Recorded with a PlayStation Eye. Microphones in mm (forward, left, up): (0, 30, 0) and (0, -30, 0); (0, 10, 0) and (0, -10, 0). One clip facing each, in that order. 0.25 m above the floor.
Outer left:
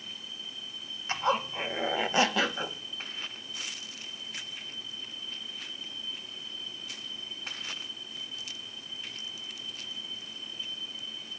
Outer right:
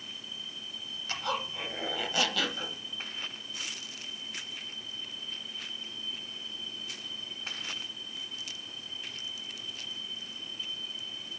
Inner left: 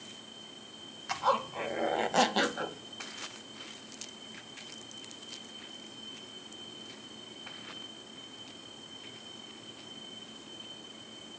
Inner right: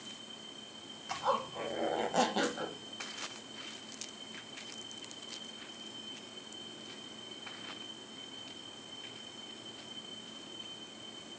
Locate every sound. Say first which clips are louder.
1.1 s a zipper: outer left 6 dB, inner left 4 dB; 25° left (ahead or behind), 0.6 m